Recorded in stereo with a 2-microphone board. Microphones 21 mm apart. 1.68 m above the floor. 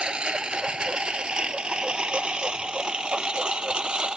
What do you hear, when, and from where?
0.0 s a lawn mower: 50° right (ahead or behind); by 4.2 s 45° right (ahead or behind)